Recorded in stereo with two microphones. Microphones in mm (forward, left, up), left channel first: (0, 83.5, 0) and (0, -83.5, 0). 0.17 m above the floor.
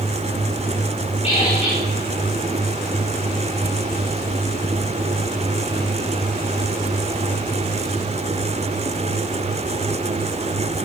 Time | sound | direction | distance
1.2 | a squeak | 40° left (ahead or behind) | 5.5 m